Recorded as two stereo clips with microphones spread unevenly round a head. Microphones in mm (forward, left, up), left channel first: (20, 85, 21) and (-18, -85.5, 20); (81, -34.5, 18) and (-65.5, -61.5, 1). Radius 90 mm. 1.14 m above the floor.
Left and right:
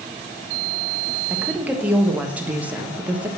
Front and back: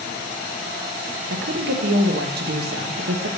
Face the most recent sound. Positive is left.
turn(degrees=175)